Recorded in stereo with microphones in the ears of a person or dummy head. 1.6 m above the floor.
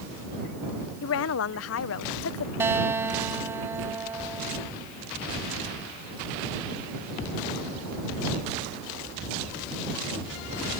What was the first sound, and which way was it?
A woman speaking, 75° left (ahead or behind).